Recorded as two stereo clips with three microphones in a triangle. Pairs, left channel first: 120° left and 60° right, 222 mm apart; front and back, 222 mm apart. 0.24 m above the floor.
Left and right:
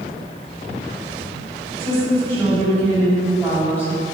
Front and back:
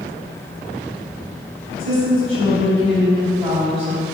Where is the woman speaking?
175° right, 1.6 m.